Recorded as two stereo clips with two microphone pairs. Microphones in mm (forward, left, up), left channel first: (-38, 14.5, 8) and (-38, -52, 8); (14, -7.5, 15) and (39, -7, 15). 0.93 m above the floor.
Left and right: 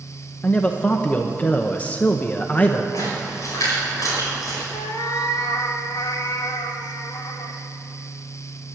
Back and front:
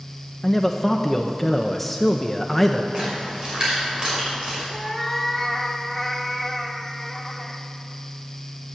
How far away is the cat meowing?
About 1.2 m.